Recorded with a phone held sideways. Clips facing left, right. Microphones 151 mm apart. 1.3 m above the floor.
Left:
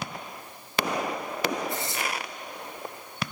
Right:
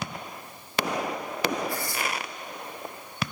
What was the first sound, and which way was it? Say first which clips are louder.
Tearing paper: even; 20° left (ahead or behind).